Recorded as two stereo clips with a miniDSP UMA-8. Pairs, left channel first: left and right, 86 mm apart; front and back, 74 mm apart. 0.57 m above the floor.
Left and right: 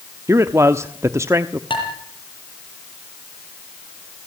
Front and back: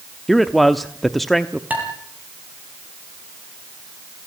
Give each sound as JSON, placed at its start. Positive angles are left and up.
{"t": 0.3, "sound": "a man speaking", "azimuth_deg": -90, "distance_m": 0.9}
{"t": 1.7, "sound": "dishes clattering", "azimuth_deg": 110, "distance_m": 8.5}